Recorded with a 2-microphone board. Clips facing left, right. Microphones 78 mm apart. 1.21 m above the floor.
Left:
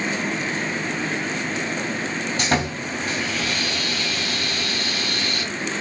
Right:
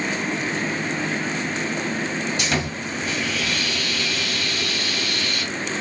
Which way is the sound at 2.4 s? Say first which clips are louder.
Left 2 dB; 40° left (ahead or behind).